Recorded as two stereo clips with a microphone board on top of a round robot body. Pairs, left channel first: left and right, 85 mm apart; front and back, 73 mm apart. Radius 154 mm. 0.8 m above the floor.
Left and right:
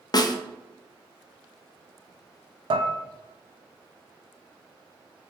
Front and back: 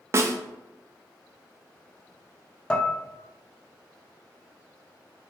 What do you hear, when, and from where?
0.1 s a snare drum: 130° left, 0.6 m
2.7 s dishes clattering: 75° right, 0.6 m